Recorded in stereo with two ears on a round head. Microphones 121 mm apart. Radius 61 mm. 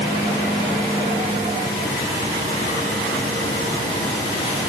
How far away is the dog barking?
No dog barking in this recording.